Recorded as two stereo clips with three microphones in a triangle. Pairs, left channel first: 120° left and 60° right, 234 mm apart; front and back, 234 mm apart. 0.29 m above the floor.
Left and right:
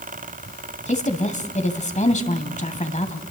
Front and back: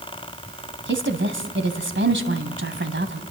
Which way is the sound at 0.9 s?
170° left.